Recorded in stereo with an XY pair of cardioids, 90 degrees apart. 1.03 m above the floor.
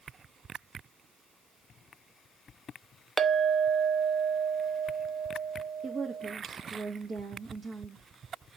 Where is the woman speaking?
55° right, 1.4 m.